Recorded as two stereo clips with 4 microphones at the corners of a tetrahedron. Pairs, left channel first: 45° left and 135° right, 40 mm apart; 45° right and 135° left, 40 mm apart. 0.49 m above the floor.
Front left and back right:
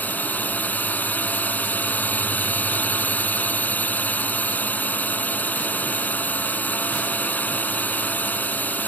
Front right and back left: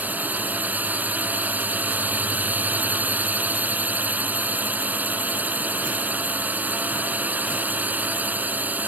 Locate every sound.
0.0 s a drone: 95° left